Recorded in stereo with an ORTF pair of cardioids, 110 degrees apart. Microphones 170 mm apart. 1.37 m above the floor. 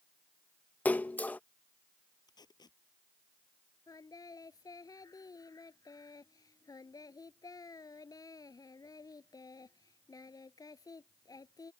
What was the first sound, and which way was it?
A splash, 10° left.